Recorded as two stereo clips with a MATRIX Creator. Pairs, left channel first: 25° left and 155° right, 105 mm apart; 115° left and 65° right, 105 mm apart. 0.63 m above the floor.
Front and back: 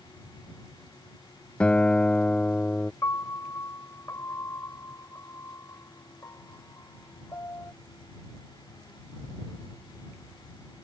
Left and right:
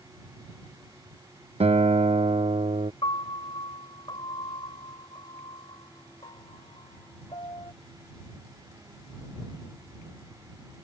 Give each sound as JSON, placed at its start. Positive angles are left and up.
{"t": 1.6, "sound": "a guitar", "azimuth_deg": -55}
{"t": 3.0, "sound": "a piano", "azimuth_deg": 80}